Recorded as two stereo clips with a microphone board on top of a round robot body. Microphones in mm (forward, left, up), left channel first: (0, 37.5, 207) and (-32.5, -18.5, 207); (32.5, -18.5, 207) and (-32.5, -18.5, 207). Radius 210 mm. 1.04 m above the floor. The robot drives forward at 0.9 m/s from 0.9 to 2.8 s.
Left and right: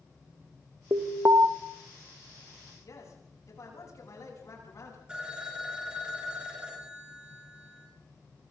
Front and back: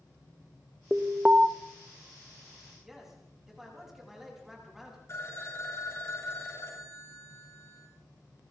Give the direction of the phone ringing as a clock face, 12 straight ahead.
1 o'clock.